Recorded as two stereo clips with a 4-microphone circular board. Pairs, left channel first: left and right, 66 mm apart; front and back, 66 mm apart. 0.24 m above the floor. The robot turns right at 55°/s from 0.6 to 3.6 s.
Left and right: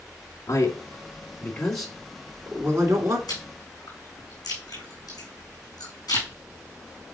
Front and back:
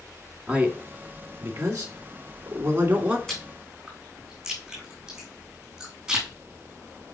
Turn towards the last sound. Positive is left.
turn(degrees=95)